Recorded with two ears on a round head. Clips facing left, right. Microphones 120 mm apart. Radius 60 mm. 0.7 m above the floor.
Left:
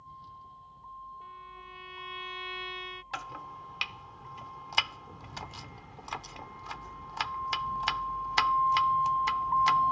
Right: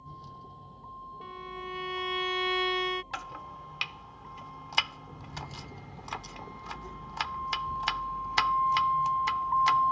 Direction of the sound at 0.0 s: 45° right (ahead or behind).